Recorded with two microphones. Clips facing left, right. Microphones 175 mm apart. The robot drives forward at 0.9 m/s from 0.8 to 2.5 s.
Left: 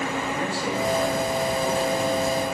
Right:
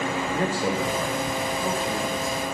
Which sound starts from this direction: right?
A man speaking, at 0.3 s.